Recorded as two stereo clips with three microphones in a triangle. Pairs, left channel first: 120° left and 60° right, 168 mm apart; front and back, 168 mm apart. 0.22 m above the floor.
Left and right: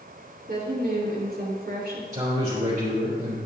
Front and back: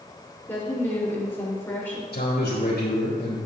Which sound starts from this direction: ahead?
A man speaking, at 2.1 s.